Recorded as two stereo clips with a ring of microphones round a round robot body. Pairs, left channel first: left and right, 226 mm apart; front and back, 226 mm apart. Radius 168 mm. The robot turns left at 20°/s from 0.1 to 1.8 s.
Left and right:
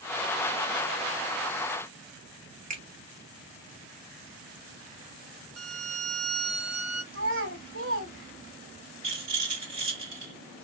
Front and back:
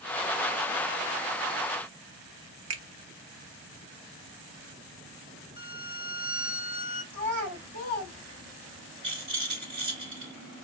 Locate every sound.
2.7 s a finger snap: 155° right, 1.0 m
5.6 s a violin: 110° right, 0.8 m
7.1 s a child speaking: 130° right, 3 m
9.0 s a rattle: 130° right, 2.5 m